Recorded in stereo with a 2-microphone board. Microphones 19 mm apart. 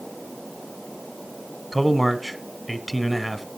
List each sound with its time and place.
1.7 s a man speaking: 5° left (ahead or behind), 1.3 m